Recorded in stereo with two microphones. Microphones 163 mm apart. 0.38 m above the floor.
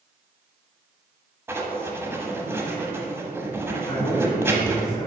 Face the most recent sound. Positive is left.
turn(degrees=55)  # may be behind; listen again after turning